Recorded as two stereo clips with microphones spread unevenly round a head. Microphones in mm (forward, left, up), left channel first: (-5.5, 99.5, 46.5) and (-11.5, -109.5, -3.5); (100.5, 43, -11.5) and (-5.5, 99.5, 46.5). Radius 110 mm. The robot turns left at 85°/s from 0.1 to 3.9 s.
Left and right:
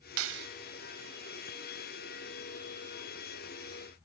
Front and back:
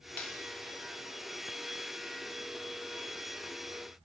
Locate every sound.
0.2 s a clap: 115° right; by 0.5 s 140° right